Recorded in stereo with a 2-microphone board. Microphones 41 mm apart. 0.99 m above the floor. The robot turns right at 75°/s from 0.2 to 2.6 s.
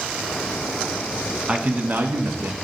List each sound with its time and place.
1.5 s a man speaking: 150° right, 1.1 m; by 2.6 s 70° right, 1.1 m